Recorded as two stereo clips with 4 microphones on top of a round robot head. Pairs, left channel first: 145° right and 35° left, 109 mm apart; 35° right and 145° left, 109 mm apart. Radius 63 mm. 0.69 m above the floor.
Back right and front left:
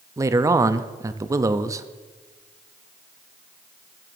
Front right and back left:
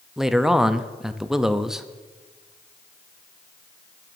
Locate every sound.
0.2 s a man speaking: 60° left, 0.5 m